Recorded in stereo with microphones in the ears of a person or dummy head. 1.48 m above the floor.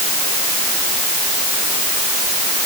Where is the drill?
No drill in this recording.